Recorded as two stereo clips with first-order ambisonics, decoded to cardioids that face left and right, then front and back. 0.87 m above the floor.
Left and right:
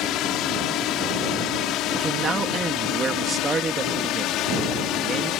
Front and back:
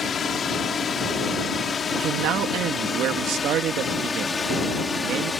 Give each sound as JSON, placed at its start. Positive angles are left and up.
{"t": 0.0, "sound": "a drone", "azimuth_deg": 65}
{"t": 1.9, "sound": "a man speaking", "azimuth_deg": -155}